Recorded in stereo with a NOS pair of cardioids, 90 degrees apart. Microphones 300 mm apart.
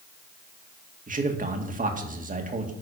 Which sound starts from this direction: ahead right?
A man speaking, at 1.1 s.